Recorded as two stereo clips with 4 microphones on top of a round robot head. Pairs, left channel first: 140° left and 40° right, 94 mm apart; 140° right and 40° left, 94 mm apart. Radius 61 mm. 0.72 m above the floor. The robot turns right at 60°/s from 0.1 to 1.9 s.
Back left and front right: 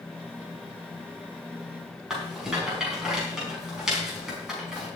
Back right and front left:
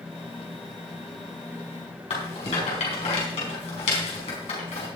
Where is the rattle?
125° right, 5 m.